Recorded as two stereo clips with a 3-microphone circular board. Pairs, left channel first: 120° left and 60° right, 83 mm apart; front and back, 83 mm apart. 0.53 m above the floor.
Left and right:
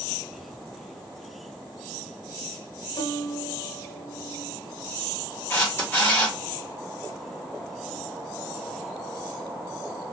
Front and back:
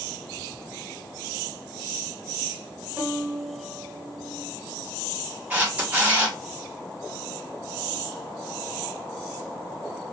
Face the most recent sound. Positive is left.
turn(degrees=135)